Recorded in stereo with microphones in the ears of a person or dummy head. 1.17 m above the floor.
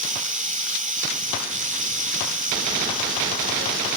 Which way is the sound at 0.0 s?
30° right (ahead or behind).